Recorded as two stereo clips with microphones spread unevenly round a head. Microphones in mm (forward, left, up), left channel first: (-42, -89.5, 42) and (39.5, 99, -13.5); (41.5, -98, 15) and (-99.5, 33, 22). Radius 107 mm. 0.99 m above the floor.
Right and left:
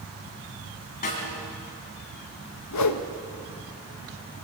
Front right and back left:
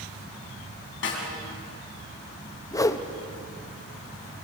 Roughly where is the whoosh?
Behind right.